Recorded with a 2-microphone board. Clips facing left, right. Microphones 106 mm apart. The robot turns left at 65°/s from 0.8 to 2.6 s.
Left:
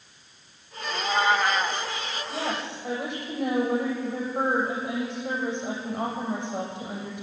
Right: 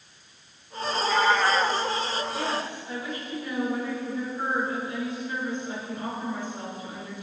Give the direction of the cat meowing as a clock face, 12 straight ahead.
10 o'clock.